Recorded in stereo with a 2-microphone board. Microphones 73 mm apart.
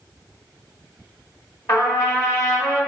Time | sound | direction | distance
1.7 | a trumpet | 40° left (ahead or behind) | 1.3 m